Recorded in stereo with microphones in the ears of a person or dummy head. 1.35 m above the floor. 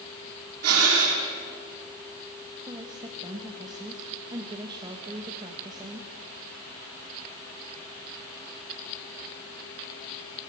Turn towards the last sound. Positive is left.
turn(degrees=-20)  # may be behind; listen again after turning